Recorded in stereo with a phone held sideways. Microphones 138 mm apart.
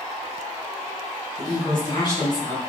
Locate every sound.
1.4 s a woman speaking: 30° left (ahead or behind), 1.4 m